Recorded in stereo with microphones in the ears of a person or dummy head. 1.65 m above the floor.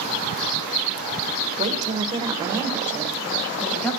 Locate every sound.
1.6 s a woman speaking: 45° right (ahead or behind), 1.3 m; by 3.9 s centre (ahead or behind), 2 m